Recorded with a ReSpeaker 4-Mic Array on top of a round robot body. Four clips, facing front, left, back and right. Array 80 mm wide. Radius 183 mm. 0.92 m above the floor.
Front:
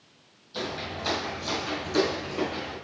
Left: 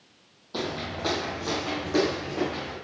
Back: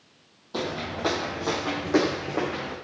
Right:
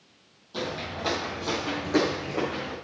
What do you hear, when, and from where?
0.5 s footsteps: 155° left, 2.5 m; by 2.7 s 165° right, 5 m